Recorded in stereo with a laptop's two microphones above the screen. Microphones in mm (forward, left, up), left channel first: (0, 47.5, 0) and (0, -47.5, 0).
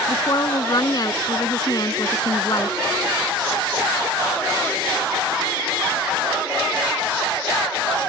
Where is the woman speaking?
45° left (ahead or behind).